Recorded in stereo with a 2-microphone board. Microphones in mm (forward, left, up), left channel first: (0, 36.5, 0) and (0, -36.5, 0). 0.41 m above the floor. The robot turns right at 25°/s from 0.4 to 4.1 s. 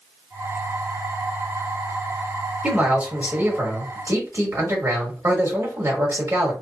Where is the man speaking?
165° right, 1.5 m; by 6.5 s 130° right, 1.5 m.